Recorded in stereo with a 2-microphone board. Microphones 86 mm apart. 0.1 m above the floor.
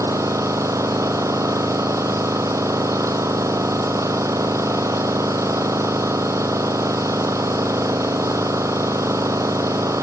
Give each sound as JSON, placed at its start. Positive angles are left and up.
{"t": 0.0, "sound": "an engine running", "side_deg": -35, "distance_m": 0.9}